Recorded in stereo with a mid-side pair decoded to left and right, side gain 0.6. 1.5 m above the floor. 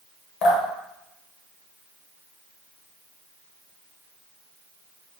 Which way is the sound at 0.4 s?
70° left.